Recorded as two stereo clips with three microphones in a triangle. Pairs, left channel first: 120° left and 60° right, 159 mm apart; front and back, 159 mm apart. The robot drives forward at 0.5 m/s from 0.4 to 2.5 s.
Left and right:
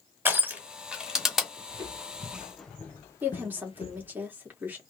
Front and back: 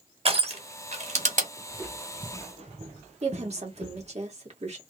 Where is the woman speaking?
140° right, 1.8 m.